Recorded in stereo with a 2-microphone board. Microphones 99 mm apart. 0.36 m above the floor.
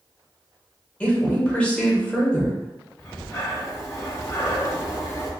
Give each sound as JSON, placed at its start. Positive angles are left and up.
{"t": 1.0, "sound": "a woman speaking", "side_deg": 15, "distance_m": 1.1}
{"t": 3.0, "sound": "breathing", "side_deg": 40, "distance_m": 1.0}